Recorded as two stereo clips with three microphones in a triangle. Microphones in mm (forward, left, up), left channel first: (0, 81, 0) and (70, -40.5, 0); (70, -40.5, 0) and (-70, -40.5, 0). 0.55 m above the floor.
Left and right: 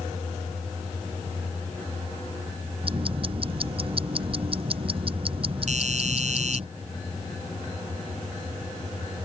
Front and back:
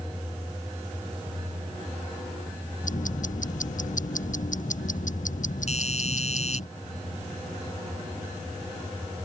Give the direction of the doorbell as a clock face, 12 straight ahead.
1 o'clock.